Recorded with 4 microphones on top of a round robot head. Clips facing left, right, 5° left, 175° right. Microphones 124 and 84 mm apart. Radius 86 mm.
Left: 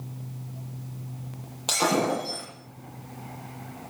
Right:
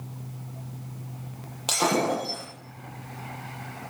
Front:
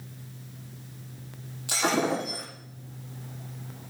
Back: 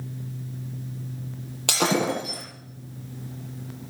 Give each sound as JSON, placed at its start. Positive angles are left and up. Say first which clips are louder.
{"t": 1.7, "sound": "breaking glass", "louder": "even, back 2 dB", "azimuth_deg": -175, "distance_m": 8.5}